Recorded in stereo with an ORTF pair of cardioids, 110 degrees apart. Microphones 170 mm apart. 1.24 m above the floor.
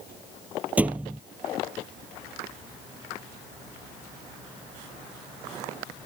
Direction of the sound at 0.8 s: 10° right.